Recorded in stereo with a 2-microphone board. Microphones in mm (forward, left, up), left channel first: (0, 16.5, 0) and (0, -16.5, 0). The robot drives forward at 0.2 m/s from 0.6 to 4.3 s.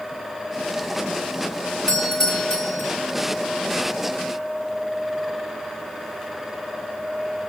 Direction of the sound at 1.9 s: 15° left (ahead or behind).